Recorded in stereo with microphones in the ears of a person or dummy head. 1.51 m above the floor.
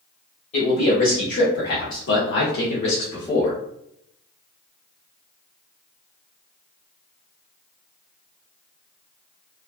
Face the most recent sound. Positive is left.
turn(degrees=20)  # may be behind; listen again after turning